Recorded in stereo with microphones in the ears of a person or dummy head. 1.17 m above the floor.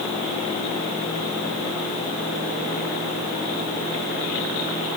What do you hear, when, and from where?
Only background noise.